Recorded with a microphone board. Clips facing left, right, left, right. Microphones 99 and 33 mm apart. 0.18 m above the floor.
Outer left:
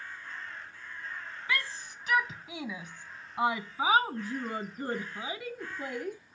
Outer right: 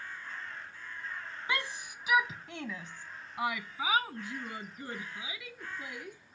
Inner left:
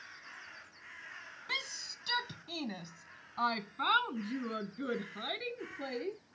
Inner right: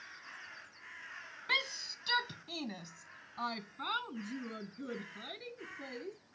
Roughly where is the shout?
Right.